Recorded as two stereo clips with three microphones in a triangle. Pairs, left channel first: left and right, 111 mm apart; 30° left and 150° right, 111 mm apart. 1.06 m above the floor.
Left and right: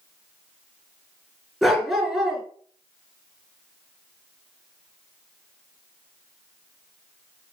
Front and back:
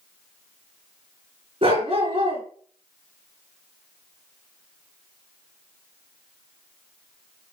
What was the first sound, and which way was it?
A dog barking, 175° right.